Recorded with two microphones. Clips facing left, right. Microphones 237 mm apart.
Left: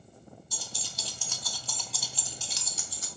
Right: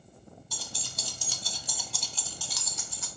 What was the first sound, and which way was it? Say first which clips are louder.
Keys jangling: right 3 dB; 70° right (ahead or behind).